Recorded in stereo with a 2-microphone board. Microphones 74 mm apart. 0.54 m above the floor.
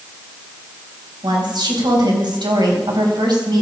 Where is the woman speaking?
70° right (ahead or behind), 3.5 m.